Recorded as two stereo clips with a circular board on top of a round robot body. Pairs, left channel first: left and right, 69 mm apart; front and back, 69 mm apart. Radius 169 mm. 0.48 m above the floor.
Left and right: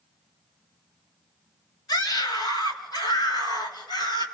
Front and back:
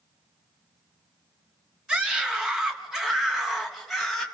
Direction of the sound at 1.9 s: 105° left.